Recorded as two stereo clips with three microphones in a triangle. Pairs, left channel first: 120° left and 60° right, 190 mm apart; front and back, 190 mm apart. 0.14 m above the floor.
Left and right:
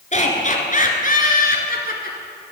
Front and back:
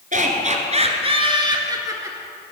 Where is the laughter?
155° left, 2.0 m; by 2.2 s 110° left, 2 m.